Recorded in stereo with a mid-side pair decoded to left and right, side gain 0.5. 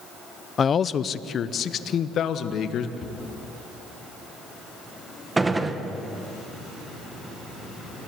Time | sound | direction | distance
0.6 | a man speaking | 40° left | 0.8 m
3.0 | a cupboard door | 55° left | 7 m
5.4 | a gunshot | 20° right | 1.9 m